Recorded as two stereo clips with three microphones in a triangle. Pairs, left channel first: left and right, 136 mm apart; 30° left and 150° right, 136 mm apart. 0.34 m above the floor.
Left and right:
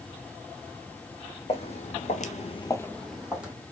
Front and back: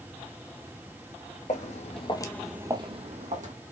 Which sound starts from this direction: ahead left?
Footsteps, at 1.5 s.